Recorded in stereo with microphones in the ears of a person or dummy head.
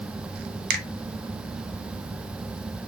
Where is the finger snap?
55° right (ahead or behind), 1.0 m.